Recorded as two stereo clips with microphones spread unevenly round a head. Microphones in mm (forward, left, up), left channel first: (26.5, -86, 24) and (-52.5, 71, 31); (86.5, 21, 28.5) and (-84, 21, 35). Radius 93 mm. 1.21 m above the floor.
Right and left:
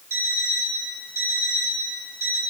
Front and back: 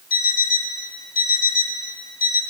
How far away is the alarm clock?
About 5 m.